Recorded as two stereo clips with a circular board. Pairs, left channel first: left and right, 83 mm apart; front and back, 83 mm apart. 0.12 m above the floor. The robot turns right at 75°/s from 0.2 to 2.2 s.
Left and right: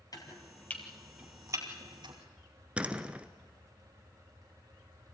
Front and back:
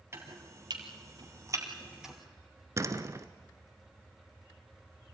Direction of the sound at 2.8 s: 160° right.